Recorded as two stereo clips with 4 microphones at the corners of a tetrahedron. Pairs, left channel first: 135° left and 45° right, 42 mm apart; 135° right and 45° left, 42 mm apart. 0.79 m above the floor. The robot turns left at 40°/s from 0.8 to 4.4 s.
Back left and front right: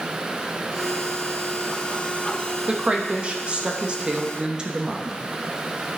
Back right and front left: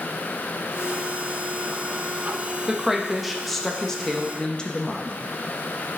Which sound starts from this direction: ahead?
A woman speaking, at 2.7 s.